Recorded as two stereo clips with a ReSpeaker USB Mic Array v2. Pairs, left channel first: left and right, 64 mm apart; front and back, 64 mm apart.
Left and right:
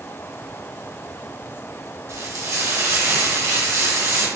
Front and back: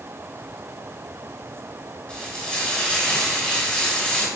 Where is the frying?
70° right, 1.3 m.